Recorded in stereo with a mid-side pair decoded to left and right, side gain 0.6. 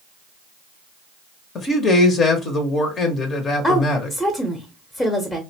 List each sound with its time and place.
1.6 s a man speaking: 40° left, 0.8 m
3.6 s a woman speaking: 15° left, 0.7 m